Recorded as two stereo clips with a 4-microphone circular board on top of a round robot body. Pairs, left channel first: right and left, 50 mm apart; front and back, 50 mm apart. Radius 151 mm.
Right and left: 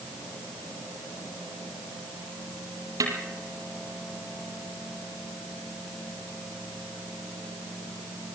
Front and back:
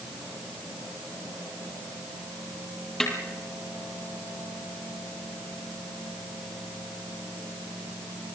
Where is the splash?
I don't hear a splash.